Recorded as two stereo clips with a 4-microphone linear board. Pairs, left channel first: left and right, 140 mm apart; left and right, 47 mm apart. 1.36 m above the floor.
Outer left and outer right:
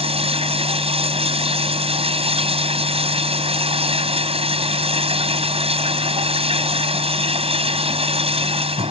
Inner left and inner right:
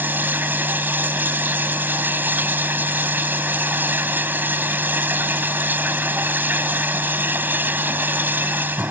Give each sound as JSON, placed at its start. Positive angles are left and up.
{"t": 0.0, "sound": "running water", "side_deg": -45}